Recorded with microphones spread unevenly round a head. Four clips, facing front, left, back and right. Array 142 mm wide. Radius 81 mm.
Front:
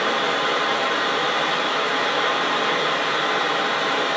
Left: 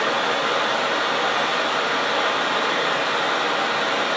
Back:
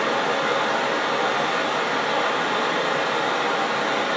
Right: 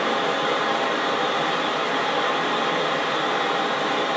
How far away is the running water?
About 1.4 m.